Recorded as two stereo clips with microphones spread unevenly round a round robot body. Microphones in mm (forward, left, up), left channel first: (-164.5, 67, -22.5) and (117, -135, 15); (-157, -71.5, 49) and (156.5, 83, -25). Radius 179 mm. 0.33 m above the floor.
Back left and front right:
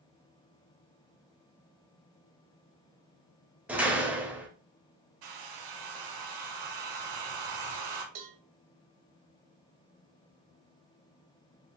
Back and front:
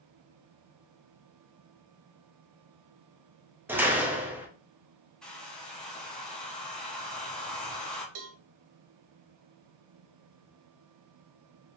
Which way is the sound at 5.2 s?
60° right.